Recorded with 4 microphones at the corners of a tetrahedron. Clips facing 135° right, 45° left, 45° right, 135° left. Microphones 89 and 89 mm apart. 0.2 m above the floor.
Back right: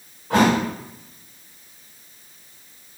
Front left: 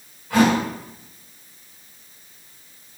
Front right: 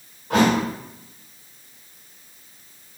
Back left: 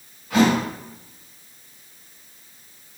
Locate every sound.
0.3 s a thud: 95° right, 4 m